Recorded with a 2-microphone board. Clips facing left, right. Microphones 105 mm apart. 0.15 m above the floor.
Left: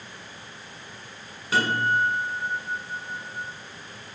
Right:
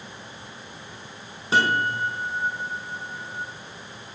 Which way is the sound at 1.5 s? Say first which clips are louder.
Right 1 dB; 30° right (ahead or behind).